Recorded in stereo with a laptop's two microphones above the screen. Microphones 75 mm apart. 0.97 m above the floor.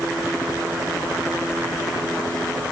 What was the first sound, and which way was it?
Only background noise.